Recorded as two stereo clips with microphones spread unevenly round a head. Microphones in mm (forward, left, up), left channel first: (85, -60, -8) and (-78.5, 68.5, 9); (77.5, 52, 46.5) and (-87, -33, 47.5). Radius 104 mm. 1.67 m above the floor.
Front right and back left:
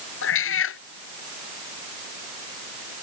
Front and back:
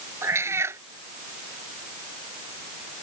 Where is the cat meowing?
75° right.